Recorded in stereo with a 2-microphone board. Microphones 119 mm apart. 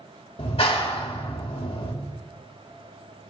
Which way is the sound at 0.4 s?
50° left (ahead or behind).